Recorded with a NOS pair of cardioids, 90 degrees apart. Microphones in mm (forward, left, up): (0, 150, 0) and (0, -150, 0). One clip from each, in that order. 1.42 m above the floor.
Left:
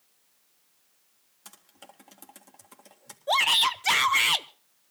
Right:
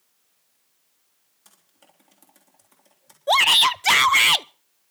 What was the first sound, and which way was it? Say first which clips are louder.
Typing on a keyboard: left 7 dB; 45° left.